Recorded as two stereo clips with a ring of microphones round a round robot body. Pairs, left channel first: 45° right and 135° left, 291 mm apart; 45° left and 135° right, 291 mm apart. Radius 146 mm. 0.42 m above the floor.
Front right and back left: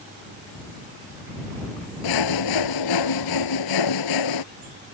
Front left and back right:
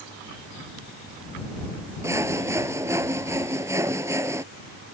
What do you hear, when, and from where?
2.0 s sawing: 55° right